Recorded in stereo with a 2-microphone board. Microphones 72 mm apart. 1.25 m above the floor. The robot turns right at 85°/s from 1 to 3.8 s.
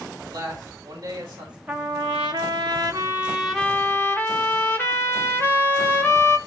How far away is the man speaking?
About 6 m.